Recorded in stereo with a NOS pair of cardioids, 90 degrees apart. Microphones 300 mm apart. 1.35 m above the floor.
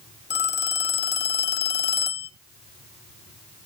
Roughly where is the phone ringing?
Ahead left.